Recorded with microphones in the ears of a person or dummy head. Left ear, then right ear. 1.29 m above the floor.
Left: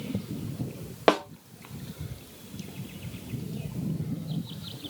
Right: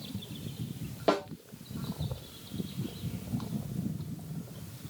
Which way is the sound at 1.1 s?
40° left (ahead or behind).